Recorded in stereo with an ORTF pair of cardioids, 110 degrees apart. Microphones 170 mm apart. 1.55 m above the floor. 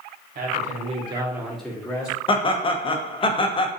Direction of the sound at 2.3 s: 30° left.